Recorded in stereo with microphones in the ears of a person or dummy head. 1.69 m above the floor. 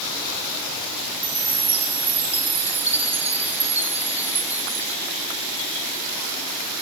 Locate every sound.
1.2 s a chime: 10° right (ahead or behind), 3 m